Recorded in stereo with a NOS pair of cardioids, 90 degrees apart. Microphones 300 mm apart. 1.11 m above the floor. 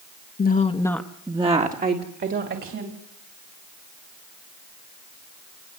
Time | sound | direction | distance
0.4 | a woman speaking | 35° left | 1.5 m